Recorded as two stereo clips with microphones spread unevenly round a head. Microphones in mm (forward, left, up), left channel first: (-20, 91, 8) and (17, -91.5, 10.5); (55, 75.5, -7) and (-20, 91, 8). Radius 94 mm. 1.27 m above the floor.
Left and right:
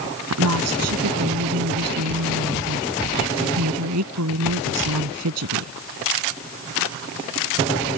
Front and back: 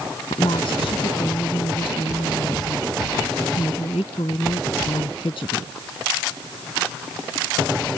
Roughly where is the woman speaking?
Right.